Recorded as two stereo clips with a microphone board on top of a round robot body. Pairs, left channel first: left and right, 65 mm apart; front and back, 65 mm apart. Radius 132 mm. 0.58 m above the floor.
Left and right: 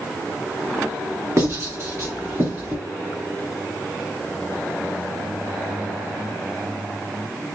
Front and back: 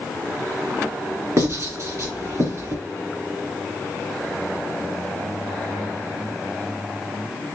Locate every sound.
1.4 s writing: 140° right, 2.5 m